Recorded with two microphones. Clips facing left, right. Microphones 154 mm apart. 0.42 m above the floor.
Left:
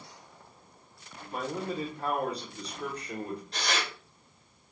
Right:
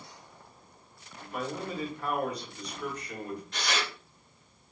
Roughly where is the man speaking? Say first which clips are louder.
Left 1 dB; left.